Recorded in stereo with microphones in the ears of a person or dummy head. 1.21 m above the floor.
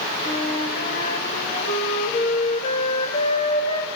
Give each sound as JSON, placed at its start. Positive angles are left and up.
{"t": 0.2, "sound": "a flute", "side_deg": 35, "distance_m": 2.5}